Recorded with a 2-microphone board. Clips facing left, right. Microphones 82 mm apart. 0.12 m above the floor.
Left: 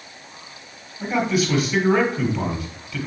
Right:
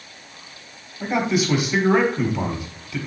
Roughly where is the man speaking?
Right.